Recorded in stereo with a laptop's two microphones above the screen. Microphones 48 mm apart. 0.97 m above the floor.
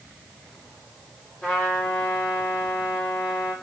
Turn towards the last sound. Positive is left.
turn(degrees=25)  # may be behind; listen again after turning